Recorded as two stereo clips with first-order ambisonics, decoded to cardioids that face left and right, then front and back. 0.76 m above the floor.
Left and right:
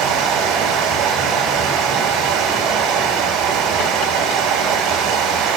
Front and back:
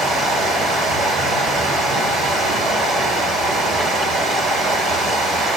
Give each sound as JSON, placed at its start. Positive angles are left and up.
{"t": 0.0, "sound": "running water", "azimuth_deg": -120, "distance_m": 2.0}